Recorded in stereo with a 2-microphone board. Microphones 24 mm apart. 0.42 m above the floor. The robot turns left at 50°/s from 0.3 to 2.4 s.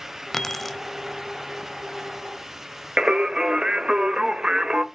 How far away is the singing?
About 0.9 m.